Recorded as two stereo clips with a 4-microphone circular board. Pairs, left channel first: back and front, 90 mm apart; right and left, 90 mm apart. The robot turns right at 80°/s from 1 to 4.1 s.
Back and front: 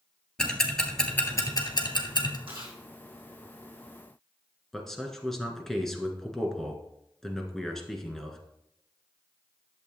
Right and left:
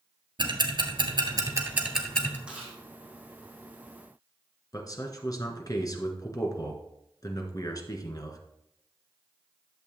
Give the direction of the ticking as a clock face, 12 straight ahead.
9 o'clock.